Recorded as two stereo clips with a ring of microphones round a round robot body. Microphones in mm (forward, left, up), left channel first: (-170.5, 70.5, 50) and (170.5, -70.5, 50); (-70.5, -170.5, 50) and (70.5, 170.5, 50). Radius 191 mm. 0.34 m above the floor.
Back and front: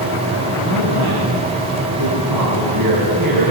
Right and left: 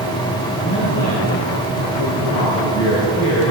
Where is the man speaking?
60° right, 9 m; by 3.5 s 55° right, 7.5 m.